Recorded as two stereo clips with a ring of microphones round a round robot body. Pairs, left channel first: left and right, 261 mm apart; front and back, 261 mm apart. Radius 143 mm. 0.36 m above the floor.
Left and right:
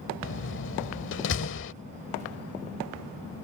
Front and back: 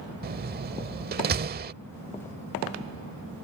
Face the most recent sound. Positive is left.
turn(degrees=130)